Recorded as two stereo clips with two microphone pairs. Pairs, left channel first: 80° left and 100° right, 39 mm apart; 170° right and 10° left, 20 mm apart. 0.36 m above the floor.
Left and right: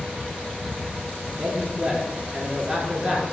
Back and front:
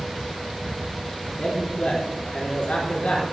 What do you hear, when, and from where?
1.4 s a man speaking: 170° right, 4.5 m